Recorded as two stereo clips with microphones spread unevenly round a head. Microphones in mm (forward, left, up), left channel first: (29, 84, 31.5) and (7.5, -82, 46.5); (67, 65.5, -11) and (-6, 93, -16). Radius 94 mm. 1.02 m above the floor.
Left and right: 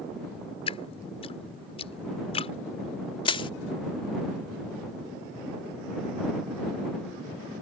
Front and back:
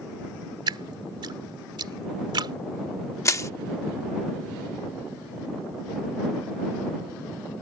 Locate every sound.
0.7 s dripping: 140° left
3.2 s crushing: 20° left